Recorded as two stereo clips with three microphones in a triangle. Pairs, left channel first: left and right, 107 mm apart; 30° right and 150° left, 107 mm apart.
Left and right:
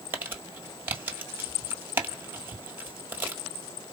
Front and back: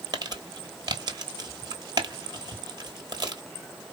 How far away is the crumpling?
About 1.3 m.